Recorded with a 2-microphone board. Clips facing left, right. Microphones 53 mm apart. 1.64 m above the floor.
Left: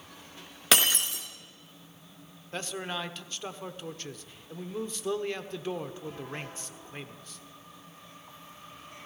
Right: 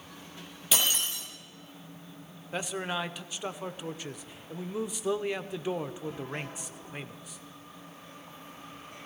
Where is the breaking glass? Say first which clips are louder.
Left 4 dB; 65° left (ahead or behind), 3 m.